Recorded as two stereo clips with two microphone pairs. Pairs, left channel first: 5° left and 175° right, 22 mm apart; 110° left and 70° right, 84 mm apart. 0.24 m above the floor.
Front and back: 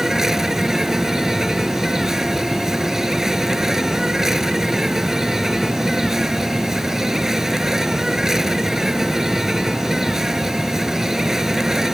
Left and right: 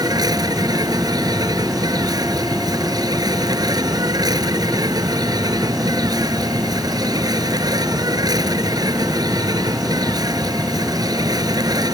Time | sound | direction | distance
0.0 | an insect | 105° right | ?